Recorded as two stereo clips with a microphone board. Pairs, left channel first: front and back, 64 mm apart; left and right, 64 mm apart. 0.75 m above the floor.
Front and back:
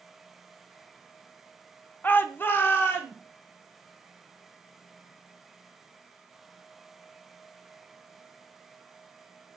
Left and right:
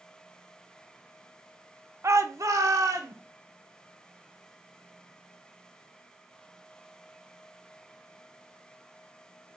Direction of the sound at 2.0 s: 55° right.